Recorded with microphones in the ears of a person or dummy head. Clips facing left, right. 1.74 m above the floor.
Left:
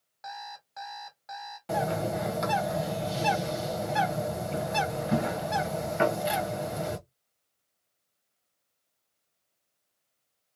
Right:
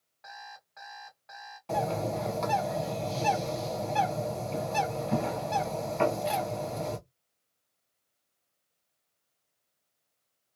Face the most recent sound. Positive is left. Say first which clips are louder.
# left 1 dB
turn(degrees=25)  # may be behind; listen again after turning